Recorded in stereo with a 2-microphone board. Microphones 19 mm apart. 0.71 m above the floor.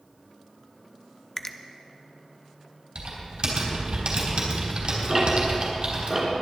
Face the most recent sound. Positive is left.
turn(degrees=-25)  # may be behind; listen again after turning